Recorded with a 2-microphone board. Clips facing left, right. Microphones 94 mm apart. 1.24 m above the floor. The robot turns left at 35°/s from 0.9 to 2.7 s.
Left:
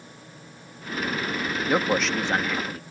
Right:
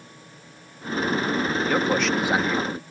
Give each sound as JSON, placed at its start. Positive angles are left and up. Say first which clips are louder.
{"t": 1.7, "sound": "a man speaking", "louder": "left 1 dB", "azimuth_deg": 10}